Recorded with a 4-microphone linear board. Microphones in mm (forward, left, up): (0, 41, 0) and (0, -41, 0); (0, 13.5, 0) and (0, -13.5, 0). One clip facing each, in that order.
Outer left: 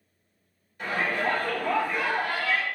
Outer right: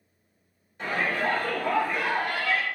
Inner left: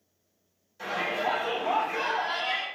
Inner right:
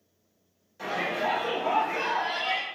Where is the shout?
20° right (ahead or behind), 1.3 m; by 2.6 s 55° right (ahead or behind), 1.7 m.